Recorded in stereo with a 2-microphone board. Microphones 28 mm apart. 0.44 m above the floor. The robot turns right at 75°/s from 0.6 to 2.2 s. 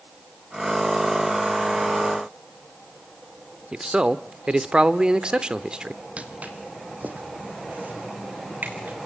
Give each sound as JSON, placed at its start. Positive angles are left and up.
{"t": 3.7, "sound": "a man speaking", "side_deg": -35, "distance_m": 0.8}
{"t": 6.2, "sound": "footsteps", "side_deg": -45, "distance_m": 1.2}